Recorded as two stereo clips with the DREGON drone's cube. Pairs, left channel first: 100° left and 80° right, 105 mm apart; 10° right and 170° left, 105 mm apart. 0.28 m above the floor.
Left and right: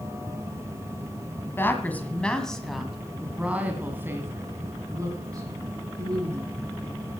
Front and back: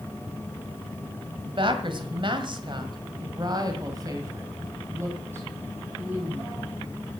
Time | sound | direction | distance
1.5 | a woman speaking | 160° left | 1.8 m